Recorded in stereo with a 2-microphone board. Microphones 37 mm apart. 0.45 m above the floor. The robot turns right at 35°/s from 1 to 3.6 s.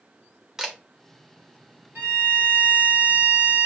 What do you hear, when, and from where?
0.6 s a camera shutter: 15° right (ahead or behind), 1.1 m
1.9 s a violin: 85° right, 2 m; by 3.7 s 30° right, 2 m